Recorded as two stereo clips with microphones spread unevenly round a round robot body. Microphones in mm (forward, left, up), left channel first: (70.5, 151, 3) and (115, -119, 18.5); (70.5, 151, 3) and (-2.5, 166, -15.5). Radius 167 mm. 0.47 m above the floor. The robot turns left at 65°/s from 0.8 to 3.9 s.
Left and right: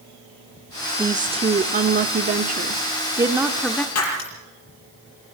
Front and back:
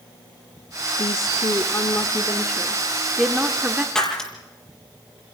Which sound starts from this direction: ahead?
A woman speaking, at 1.0 s.